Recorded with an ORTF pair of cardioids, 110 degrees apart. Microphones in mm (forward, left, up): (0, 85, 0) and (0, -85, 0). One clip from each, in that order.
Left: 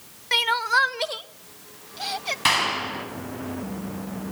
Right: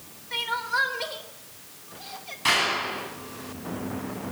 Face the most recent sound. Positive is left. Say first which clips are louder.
# left 1 dB
turn(degrees=45)